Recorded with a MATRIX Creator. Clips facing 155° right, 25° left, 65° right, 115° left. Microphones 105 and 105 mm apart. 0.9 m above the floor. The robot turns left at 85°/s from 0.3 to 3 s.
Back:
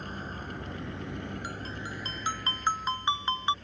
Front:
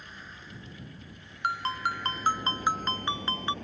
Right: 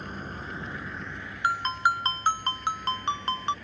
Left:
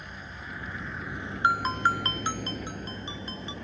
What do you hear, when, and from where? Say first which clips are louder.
0.0 s a vehicle: back 9 dB, right 5 dB; 115° right; by 3.6 s 50° left
1.4 s a ringtone: front 8 dB, left 1 dB; 45° left; by 3.5 s 85° right